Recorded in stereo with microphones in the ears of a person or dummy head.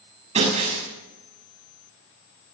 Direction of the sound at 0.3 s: 30° right (ahead or behind).